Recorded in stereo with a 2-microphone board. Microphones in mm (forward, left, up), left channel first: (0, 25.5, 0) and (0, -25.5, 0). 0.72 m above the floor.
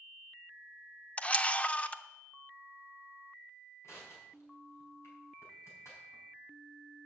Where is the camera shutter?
25° left (ahead or behind), 0.5 m.